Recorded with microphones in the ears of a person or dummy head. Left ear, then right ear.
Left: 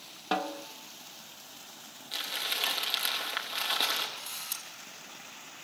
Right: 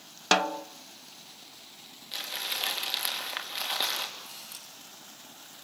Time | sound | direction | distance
0.3 | a snare drum | 65° right (ahead or behind) | 0.7 m
2.1 | crumpling | centre (ahead or behind) | 3 m
4.2 | a camera shutter | 30° left (ahead or behind) | 4.5 m